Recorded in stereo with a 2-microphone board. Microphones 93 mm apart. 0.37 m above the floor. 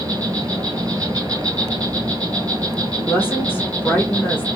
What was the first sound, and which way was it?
An insect, 40° right (ahead or behind).